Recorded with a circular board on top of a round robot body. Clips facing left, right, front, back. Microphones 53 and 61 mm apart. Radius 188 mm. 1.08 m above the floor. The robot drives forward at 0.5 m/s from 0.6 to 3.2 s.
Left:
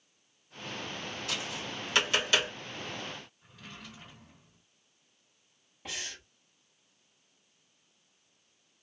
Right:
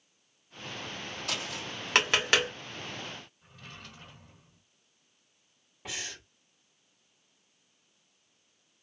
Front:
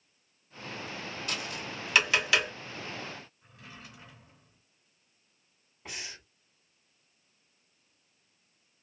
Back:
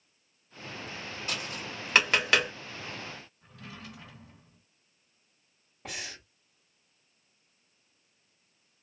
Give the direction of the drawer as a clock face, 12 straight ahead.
6 o'clock.